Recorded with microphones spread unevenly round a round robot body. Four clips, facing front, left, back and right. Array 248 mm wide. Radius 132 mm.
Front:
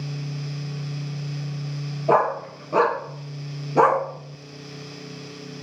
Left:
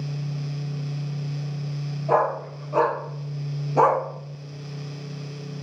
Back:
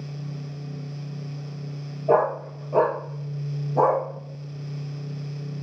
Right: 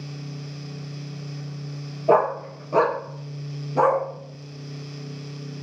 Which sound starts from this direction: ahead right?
A dog barking, at 2.1 s.